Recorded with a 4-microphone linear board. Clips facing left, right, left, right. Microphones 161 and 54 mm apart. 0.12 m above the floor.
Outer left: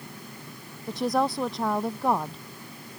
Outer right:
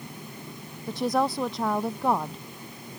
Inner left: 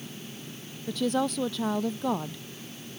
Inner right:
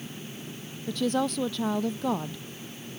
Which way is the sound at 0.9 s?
Centre (ahead or behind).